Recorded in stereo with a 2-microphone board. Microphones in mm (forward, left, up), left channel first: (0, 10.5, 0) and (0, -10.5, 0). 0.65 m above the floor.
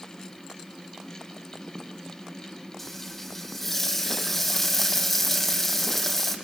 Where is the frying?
15° left (ahead or behind), 4 m.